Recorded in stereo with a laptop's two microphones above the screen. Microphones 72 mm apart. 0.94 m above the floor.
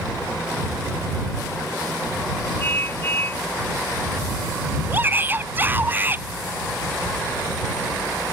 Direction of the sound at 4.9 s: 30° right (ahead or behind).